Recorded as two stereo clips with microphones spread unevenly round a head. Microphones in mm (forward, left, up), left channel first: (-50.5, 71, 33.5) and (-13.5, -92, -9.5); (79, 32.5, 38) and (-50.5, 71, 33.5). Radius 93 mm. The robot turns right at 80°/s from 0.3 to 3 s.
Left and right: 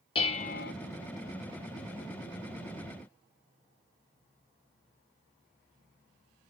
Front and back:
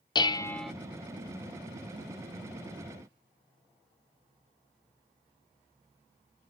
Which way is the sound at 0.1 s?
45° left.